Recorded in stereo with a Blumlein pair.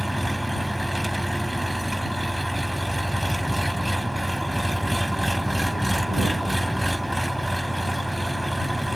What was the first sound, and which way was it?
An engine running, straight ahead.